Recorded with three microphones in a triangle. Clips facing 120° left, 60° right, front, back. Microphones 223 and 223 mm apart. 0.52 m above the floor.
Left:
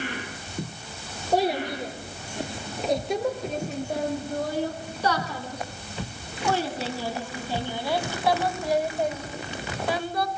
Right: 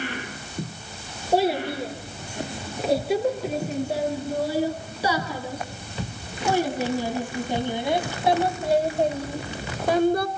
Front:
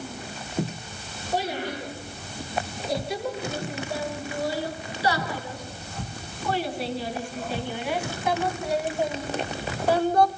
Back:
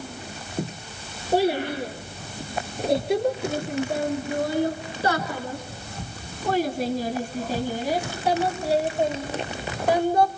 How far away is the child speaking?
About 6.5 m.